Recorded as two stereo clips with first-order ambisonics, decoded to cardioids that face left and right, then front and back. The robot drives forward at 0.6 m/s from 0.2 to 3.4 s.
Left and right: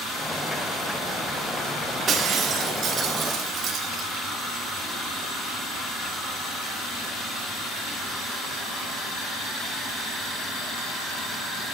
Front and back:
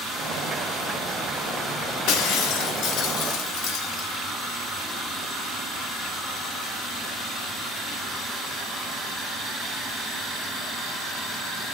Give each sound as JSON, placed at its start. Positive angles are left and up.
{"t": 2.1, "sound": "breaking glass", "azimuth_deg": -25, "distance_m": 2.5}